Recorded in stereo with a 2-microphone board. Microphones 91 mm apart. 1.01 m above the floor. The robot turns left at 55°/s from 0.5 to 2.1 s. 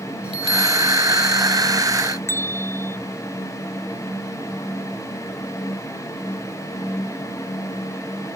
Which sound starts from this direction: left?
A bell, at 2.3 s.